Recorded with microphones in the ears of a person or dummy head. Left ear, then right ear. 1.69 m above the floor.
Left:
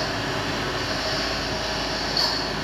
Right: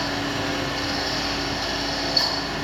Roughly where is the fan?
Right.